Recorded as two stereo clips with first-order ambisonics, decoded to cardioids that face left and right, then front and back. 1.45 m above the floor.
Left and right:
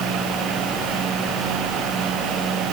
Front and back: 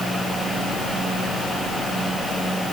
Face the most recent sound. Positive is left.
No sound to turn to.